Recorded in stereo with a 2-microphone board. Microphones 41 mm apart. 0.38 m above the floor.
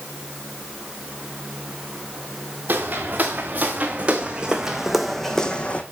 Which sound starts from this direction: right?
Footsteps, at 2.7 s.